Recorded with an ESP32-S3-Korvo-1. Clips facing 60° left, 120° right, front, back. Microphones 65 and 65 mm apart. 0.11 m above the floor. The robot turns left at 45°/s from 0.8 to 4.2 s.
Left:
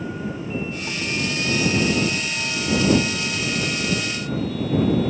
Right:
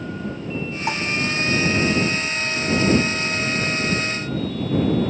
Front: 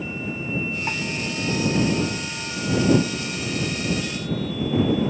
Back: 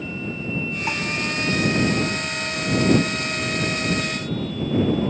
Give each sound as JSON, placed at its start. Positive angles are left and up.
{"t": 0.9, "sound": "dishes clattering", "azimuth_deg": -95}